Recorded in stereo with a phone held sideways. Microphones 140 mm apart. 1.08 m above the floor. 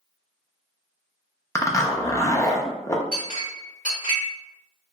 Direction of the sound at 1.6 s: 25° left (ahead or behind).